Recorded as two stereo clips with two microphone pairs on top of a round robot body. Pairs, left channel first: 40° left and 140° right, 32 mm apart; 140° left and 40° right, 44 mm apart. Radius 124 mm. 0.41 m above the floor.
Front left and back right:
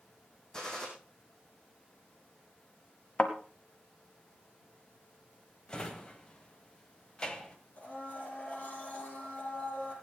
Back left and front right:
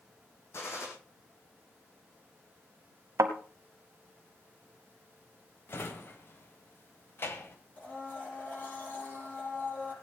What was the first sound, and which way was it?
A gunshot, 105° left.